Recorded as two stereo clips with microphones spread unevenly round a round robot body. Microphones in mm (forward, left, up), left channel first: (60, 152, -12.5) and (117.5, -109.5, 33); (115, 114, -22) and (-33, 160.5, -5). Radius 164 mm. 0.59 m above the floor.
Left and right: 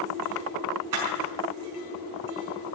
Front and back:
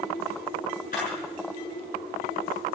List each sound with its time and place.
0.9 s a camera shutter: 80° right, 6.5 m